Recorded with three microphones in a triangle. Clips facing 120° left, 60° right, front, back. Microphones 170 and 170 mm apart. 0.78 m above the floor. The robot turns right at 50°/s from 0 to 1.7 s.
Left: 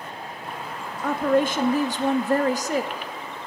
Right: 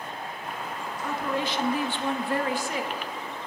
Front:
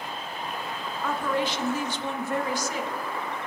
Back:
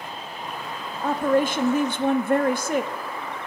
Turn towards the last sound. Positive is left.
turn(degrees=160)